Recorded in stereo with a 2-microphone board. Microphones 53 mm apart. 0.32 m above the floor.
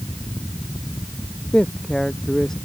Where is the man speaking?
10° left (ahead or behind).